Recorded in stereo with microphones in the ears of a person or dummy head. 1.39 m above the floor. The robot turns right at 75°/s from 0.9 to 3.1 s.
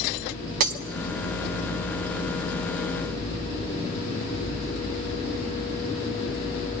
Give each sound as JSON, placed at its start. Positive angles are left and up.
{"t": 0.6, "sound": "breaking glass", "side_deg": -50, "distance_m": 0.9}